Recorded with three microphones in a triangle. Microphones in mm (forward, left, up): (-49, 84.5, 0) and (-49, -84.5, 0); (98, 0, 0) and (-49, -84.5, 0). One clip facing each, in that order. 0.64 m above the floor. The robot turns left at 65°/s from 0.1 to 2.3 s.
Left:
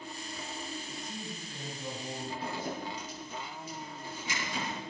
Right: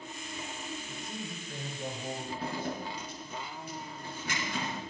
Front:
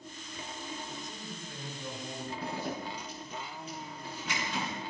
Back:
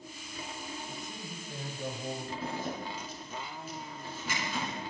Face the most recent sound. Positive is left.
turn(degrees=-65)